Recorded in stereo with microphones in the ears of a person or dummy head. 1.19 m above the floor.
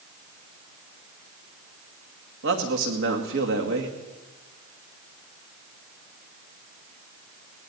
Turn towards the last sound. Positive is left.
turn(degrees=-65)  # may be behind; listen again after turning